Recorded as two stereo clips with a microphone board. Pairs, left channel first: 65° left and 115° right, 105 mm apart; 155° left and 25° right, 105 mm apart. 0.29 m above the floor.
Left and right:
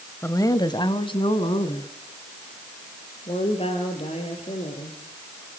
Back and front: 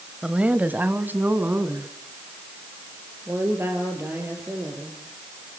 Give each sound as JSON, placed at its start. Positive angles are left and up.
{"t": 0.2, "sound": "a woman speaking", "azimuth_deg": 50, "distance_m": 1.1}